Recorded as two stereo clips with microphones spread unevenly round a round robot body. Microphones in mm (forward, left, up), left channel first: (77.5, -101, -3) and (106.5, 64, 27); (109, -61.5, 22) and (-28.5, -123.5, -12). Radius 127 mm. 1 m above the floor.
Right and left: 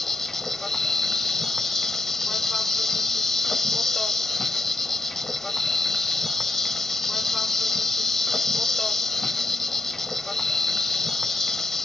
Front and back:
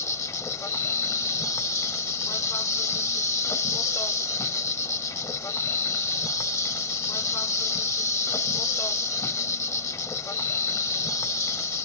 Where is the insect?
5° left.